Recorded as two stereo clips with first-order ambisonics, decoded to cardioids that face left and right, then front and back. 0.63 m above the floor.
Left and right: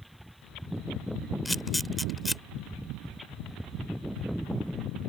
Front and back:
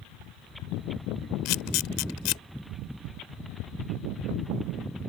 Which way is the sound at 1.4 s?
5° left.